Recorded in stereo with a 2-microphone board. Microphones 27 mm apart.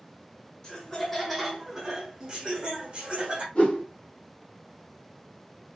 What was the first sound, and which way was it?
Laughter, 20° left (ahead or behind).